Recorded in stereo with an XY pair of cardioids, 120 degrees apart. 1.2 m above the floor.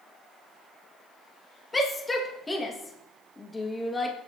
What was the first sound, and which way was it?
A shout, 20° left.